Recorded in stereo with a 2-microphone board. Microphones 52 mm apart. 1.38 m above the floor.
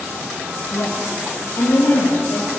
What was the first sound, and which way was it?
A woman speaking, 75° left (ahead or behind).